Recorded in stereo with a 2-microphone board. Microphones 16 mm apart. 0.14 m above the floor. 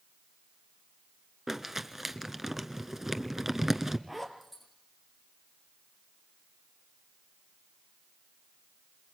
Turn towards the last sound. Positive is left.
turn(degrees=-15)  # may be behind; listen again after turning